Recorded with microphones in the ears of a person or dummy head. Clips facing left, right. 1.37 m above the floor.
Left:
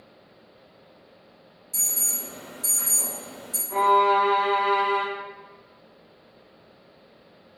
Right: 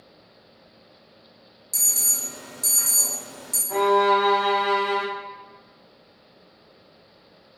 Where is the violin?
80° right, 0.8 m.